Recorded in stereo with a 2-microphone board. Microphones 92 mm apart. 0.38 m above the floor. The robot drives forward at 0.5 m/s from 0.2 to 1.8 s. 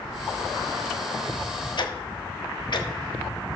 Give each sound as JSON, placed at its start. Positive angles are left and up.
{"t": 1.8, "sound": "ticking", "side_deg": 55, "distance_m": 1.2}